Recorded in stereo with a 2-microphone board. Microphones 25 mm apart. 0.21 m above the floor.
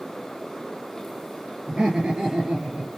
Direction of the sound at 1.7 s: 35° right (ahead or behind).